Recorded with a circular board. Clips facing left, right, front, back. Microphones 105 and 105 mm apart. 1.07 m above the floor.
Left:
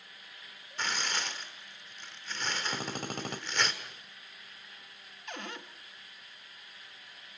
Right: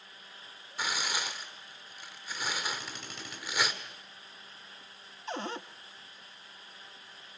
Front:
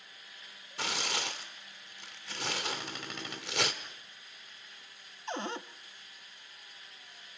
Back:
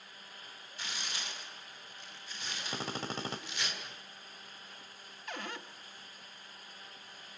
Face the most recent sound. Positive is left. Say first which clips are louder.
# right 6 dB, front 6 dB
turn(degrees=-45)